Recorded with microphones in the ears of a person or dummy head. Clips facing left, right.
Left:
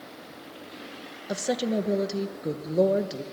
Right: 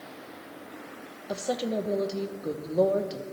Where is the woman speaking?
15° left (ahead or behind), 0.9 m.